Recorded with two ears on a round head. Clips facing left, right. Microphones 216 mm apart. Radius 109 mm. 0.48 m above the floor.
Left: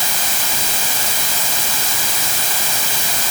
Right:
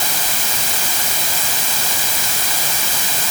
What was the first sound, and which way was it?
Only background noise.